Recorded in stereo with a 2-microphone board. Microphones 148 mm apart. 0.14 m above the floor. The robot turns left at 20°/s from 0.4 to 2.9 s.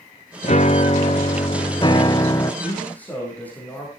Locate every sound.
0.4 s a piano: 65° left, 0.8 m; by 2.5 s 25° left, 0.8 m
2.6 s a man speaking: 15° left (ahead or behind), 5.5 m; by 3.9 s 10° left (ahead or behind), 5.5 m